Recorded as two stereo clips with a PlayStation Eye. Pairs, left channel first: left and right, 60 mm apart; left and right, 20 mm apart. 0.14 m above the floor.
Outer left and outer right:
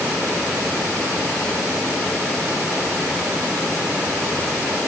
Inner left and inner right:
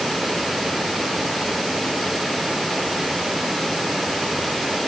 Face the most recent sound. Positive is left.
No sound to turn to.